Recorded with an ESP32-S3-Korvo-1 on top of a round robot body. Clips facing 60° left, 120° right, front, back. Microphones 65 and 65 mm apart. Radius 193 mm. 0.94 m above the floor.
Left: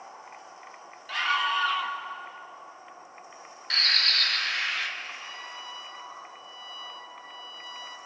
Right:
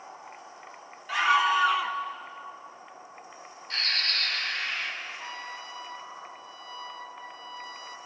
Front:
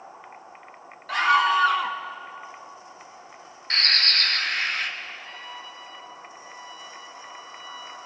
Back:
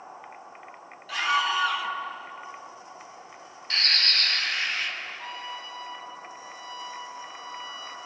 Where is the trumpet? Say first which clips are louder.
Right 2 dB, back 2 dB; 170° right, 1.7 m.